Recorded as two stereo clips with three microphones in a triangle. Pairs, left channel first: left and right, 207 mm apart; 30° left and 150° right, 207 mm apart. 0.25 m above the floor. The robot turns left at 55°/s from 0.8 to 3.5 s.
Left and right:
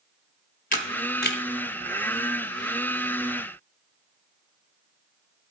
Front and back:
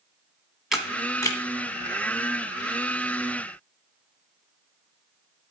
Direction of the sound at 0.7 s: 120° left.